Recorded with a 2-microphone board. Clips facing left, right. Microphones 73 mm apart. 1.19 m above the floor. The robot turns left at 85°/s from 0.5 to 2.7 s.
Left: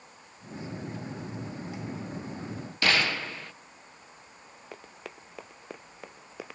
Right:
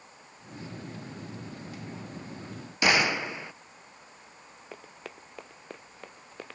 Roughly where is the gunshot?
Centre.